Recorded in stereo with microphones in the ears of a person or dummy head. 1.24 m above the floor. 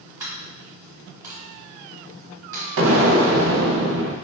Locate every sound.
0.2 s a dropped coin: 20° right (ahead or behind), 1.6 m
2.8 s an explosion: 80° right, 0.8 m